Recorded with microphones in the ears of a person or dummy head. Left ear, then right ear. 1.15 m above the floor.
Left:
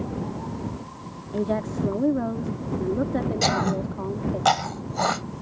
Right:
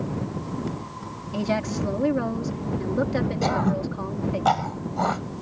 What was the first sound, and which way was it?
A woman speaking, 65° right (ahead or behind).